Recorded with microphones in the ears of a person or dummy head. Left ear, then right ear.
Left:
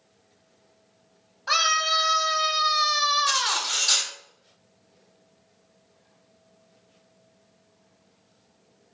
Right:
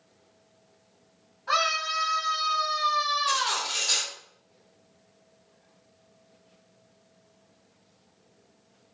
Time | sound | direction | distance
1.5 | a scream | 40° left (ahead or behind) | 1.4 m
3.3 | cutlery clinking | 30° left (ahead or behind) | 1.8 m